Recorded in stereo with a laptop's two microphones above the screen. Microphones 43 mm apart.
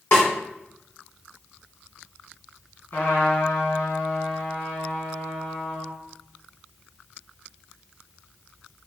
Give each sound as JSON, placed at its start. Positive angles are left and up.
{"t": 0.1, "sound": "a snare drum", "side_deg": 60, "distance_m": 1.4}
{"t": 2.9, "sound": "a trumpet", "side_deg": 50, "distance_m": 1.7}